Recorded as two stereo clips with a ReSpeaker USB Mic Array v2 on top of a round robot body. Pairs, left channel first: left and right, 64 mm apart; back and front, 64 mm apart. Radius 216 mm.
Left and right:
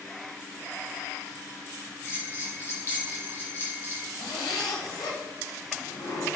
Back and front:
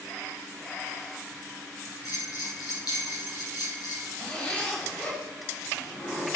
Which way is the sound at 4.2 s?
110° left.